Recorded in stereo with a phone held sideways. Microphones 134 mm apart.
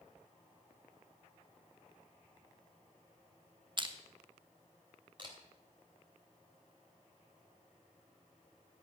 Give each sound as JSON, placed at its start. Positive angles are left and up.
{"t": 3.8, "sound": "crushing", "side_deg": -35, "distance_m": 1.2}
{"t": 5.2, "sound": "a camera shutter", "side_deg": -35, "distance_m": 3.0}